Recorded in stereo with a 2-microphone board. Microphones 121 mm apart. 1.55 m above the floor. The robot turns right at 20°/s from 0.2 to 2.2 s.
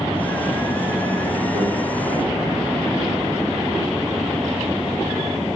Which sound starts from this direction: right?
A microwave, at 1.6 s.